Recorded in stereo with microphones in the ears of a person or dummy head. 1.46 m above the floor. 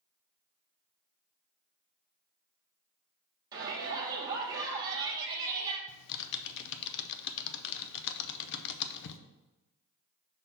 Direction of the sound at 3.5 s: 20° right (ahead or behind).